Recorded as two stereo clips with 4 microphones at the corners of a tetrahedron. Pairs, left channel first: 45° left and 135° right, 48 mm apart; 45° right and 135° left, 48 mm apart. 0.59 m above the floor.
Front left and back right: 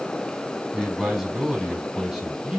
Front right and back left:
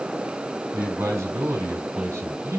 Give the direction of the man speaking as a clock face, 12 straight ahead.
7 o'clock.